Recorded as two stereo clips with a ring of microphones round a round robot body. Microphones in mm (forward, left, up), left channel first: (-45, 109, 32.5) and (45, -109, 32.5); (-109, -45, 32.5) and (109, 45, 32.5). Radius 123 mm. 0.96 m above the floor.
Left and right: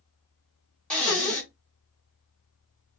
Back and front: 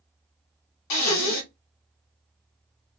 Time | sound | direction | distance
0.9 | breathing | 160° right | 1.7 m